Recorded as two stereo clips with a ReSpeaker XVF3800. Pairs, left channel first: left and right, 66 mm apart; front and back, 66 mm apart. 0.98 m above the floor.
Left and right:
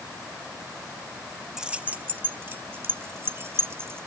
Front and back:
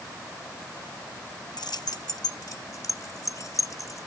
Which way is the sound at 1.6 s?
5° right.